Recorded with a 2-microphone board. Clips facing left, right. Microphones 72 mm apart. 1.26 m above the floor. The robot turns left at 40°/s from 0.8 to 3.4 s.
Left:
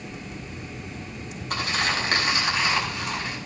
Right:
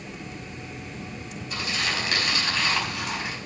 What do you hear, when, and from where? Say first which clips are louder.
1.5 s crumpling: left 3 dB; 55° left, 5 m; by 3.4 s 20° right, 5 m